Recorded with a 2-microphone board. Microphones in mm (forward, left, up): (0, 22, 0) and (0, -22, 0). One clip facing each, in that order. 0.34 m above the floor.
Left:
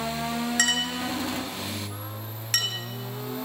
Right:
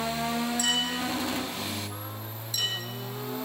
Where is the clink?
60° left (ahead or behind), 3 m.